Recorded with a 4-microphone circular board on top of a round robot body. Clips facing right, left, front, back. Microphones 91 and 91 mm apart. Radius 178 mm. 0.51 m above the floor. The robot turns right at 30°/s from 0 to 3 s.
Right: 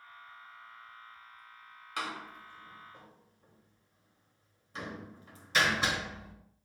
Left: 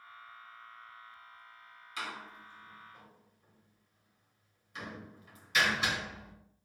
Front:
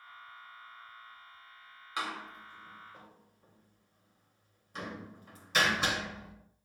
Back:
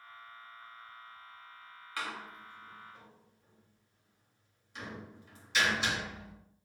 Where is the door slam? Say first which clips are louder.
Right 3 dB, front 3 dB; 70° right, 2.5 m; by 6.3 s 40° right, 2.5 m.